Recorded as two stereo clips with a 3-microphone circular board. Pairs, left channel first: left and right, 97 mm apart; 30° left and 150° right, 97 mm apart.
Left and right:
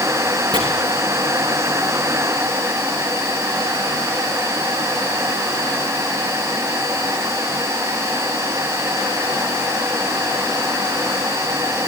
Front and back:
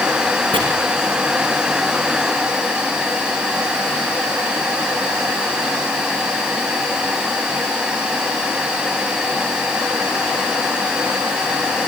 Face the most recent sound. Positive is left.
turn(degrees=-115)